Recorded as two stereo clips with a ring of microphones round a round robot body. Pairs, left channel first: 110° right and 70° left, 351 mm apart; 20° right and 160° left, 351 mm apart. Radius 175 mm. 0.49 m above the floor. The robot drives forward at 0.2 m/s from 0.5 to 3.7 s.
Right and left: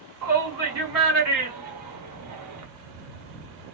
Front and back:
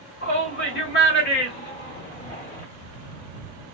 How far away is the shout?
About 1.7 m.